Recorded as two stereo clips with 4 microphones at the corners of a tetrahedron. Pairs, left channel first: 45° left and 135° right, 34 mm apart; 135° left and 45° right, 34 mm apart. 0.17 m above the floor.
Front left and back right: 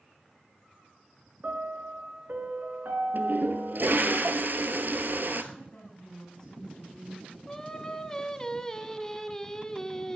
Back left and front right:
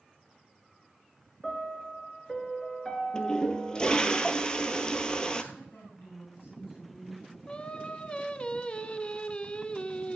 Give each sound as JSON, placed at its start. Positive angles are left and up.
{"t": 1.4, "sound": "a piano", "azimuth_deg": -150, "distance_m": 2.0}
{"t": 3.1, "sound": "a toilet flushing", "azimuth_deg": -160, "distance_m": 1.1}
{"t": 5.5, "sound": "a woman speaking", "azimuth_deg": 110, "distance_m": 9.5}
{"t": 7.5, "sound": "singing", "azimuth_deg": 105, "distance_m": 0.8}